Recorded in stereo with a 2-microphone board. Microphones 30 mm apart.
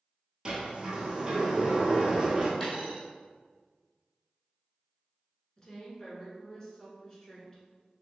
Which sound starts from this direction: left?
A woman speaking, at 5.6 s.